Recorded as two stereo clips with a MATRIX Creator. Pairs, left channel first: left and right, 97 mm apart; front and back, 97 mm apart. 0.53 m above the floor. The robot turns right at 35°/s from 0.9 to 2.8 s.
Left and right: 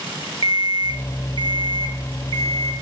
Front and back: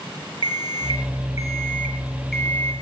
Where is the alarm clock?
135° right, 0.8 m; by 2.7 s 70° right, 0.8 m.